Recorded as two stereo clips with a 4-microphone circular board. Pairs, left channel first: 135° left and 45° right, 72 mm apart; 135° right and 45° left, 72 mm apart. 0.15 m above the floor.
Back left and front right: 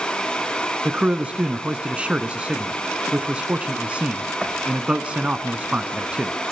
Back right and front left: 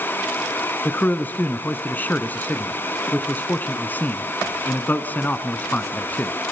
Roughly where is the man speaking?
Right.